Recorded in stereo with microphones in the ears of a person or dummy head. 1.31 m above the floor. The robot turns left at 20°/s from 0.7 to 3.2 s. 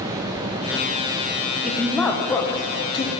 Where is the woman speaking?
Centre (ahead or behind), 0.6 m; by 3.1 s 30° left (ahead or behind), 0.6 m.